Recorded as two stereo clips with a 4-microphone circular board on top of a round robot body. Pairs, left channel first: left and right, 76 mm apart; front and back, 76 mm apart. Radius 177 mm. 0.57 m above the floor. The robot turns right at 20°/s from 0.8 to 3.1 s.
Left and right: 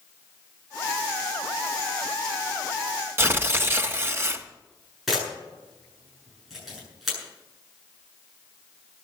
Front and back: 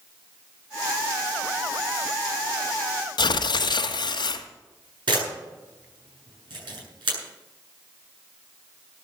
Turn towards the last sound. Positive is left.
turn(degrees=180)